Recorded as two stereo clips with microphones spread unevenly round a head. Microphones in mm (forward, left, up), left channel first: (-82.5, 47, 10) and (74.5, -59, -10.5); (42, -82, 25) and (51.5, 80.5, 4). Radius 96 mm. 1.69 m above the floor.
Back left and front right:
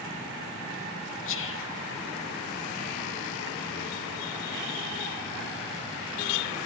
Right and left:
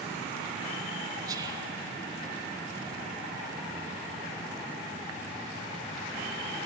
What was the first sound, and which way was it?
Whispering, 160° left.